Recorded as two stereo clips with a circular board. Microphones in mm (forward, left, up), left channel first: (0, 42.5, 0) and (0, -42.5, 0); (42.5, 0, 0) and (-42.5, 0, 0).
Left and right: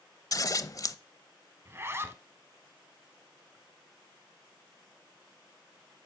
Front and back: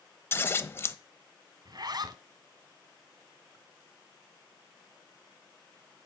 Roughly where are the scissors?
Ahead left.